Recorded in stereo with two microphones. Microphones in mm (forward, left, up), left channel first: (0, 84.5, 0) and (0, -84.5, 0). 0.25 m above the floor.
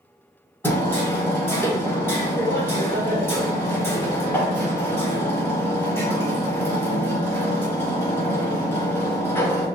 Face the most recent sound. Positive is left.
turn(degrees=15)  # may be behind; listen again after turning